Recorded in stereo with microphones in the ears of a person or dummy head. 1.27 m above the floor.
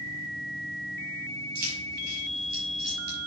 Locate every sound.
1.6 s keys jangling: 50° right (ahead or behind), 5.5 m; by 3.2 s 60° right (ahead or behind), 5 m